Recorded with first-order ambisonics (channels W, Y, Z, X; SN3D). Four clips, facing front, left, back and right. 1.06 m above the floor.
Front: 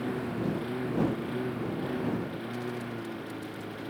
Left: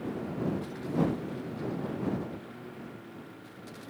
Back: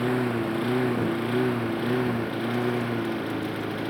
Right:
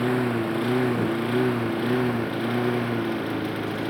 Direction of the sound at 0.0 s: 125° right.